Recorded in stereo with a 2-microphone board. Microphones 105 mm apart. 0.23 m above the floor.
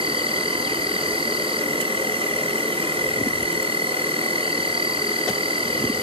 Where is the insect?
55° right (ahead or behind), 1.3 m.